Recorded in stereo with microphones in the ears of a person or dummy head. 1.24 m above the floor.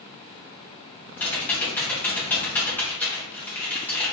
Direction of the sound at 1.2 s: 5° left (ahead or behind).